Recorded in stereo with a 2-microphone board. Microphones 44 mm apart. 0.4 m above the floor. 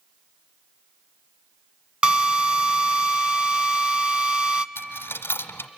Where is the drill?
30° right (ahead or behind), 0.7 m.